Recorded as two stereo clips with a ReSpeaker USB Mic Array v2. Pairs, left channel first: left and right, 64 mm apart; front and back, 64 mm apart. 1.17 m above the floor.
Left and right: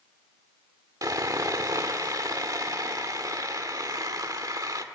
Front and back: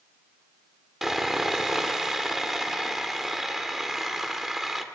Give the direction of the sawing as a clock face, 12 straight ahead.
3 o'clock.